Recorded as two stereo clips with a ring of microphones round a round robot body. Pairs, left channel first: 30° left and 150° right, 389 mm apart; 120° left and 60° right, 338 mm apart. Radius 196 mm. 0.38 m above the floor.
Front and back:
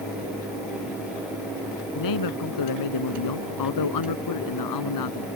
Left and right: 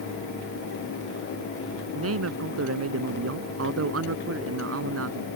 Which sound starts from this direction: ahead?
A man speaking, at 1.9 s.